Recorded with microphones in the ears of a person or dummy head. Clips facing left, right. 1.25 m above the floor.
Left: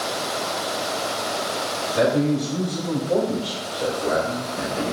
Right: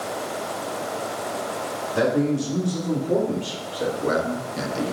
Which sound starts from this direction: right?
A man speaking, at 1.9 s.